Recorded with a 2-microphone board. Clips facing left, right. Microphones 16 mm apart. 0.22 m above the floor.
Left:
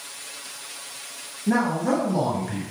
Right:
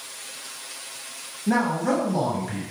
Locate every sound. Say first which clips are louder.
1.5 s a man speaking: even; 15° right (ahead or behind), 1.1 m; by 2.6 s centre (ahead or behind), 1.2 m